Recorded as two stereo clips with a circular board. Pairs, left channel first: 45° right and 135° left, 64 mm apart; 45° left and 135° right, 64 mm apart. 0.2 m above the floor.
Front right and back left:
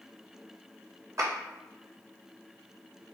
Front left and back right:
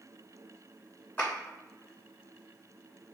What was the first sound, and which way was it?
A clap, 105° left.